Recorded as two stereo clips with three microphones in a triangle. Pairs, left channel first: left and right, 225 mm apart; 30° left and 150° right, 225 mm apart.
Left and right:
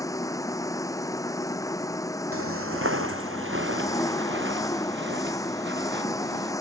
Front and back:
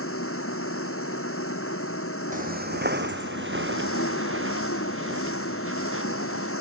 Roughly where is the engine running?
Ahead.